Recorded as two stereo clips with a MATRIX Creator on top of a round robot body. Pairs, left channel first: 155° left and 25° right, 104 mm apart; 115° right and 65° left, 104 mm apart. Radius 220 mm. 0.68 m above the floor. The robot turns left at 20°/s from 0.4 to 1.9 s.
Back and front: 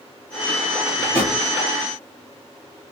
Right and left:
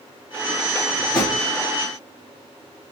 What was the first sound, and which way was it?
A drawer, 50° right.